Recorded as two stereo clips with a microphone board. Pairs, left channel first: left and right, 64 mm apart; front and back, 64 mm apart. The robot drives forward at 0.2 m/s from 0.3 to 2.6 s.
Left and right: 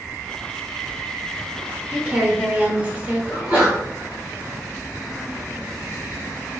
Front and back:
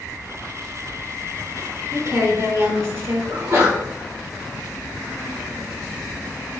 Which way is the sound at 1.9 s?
145° right.